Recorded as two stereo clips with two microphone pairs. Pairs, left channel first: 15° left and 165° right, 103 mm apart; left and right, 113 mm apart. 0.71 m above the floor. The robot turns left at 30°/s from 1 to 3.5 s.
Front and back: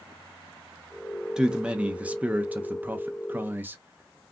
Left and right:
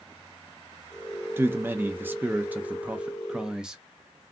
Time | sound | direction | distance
1.4 | a man speaking | 100° right | 0.5 m